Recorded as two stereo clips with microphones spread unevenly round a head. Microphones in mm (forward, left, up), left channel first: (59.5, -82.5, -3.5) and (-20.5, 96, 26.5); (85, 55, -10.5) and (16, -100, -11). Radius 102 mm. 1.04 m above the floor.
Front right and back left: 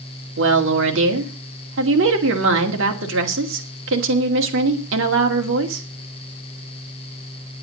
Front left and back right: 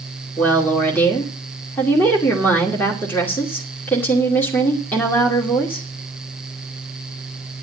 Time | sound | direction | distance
0.4 | a woman speaking | 150° left | 2.5 m